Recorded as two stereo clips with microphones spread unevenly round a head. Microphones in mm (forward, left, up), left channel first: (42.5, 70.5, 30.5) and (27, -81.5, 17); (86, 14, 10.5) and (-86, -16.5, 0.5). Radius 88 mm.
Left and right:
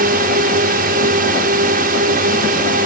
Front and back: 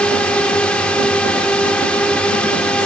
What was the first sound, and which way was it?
A drone, 75° right.